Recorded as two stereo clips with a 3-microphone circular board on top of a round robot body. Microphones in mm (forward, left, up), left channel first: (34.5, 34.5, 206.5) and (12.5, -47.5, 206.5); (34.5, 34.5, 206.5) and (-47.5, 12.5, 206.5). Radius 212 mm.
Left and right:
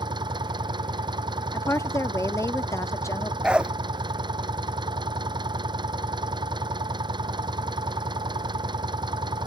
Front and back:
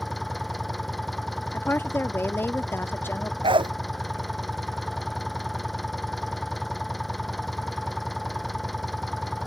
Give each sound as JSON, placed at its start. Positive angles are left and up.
{"t": 0.0, "sound": "an engine running", "azimuth_deg": -75}
{"t": 1.5, "sound": "a woman speaking", "azimuth_deg": 55}
{"t": 3.4, "sound": "a dog barking", "azimuth_deg": 175}